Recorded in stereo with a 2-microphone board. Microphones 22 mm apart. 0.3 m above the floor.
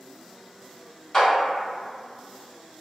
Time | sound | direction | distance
1.1 | a clap | 30° left (ahead or behind) | 1.6 m